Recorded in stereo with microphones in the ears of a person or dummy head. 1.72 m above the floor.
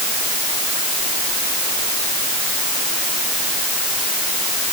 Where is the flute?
No flute in this recording.